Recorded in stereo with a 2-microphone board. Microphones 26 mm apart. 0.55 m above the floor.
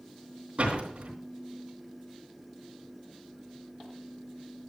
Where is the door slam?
50° right (ahead or behind), 3 m.